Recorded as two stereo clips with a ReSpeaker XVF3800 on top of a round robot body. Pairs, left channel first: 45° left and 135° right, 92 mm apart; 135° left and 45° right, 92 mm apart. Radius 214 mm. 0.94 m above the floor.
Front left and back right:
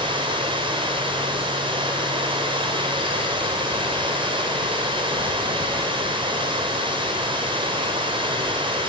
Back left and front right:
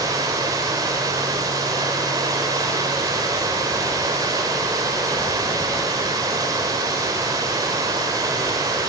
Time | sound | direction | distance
0.0 | running water | 100° right | 1.9 m